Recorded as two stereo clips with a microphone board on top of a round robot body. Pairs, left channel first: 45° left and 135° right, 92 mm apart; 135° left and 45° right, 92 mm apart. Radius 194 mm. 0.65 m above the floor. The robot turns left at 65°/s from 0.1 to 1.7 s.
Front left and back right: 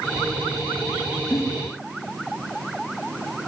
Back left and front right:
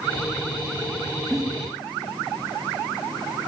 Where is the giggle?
45° left, 0.6 m; by 1.4 s 40° left, 0.6 m.